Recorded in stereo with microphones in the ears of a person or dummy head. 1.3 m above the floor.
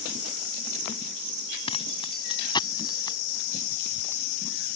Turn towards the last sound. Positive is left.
turn(degrees=15)  # may be behind; listen again after turning